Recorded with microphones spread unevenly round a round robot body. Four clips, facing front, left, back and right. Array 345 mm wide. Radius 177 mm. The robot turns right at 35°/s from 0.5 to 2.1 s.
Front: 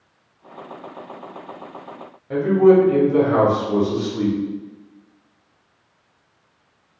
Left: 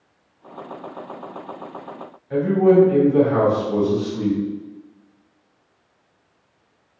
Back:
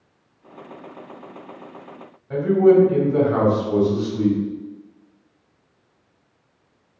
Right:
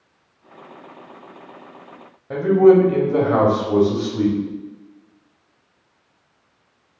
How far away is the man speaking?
About 1.8 m.